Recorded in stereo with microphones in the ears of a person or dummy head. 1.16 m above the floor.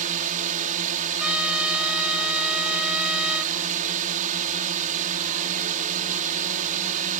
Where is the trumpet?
5° right (ahead or behind).